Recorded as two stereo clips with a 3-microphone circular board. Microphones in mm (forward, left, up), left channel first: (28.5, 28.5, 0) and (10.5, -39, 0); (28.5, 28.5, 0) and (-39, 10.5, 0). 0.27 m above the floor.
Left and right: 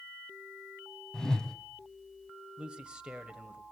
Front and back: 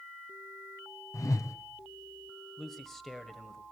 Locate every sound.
1.1 s a whoosh: 5° right, 1.6 m
2.6 s a man speaking: 60° right, 1.3 m